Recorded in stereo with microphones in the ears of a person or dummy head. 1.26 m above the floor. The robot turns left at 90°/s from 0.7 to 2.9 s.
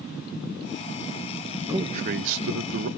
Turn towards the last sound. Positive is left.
turn(degrees=-125)